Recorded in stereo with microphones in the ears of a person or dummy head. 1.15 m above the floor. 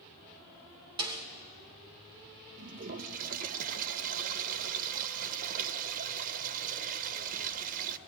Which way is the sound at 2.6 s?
45° right (ahead or behind).